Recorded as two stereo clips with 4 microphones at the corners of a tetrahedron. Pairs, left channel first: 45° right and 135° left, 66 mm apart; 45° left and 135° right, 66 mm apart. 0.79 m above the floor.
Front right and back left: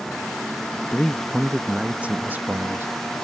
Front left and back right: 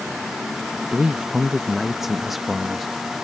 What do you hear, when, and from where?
0.9 s a man speaking: 90° right; by 2.9 s 135° left